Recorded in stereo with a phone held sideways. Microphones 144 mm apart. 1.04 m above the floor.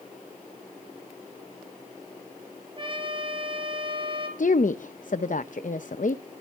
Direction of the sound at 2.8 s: 35° right (ahead or behind).